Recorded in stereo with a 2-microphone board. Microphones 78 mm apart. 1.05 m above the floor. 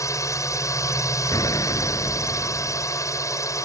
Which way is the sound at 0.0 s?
45° left (ahead or behind).